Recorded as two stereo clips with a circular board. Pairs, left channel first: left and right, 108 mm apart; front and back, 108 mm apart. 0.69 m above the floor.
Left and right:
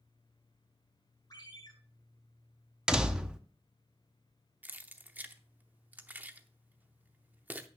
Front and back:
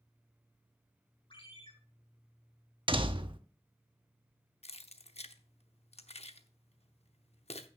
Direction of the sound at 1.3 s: 40° left.